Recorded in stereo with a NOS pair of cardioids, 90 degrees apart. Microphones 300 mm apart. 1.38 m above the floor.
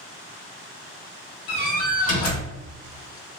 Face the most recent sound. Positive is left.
turn(degrees=55)